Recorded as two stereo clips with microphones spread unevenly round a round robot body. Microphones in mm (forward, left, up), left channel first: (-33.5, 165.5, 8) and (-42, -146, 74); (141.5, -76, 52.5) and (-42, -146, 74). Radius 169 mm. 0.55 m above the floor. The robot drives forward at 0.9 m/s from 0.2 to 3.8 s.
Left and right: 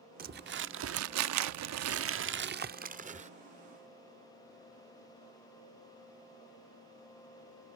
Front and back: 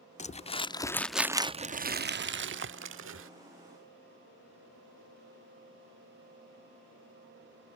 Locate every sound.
0.2 s crumpling: 25° right; by 3.3 s 165° right